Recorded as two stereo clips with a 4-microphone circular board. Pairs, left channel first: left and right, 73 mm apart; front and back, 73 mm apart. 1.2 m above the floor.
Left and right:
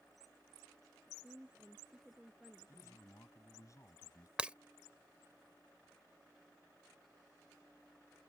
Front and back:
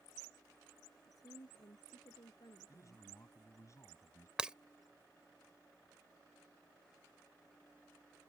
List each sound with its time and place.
1.1 s a woman speaking: 15° right; by 3.0 s 5° right
2.7 s a man speaking: 45° left
4.4 s breaking glass: 130° right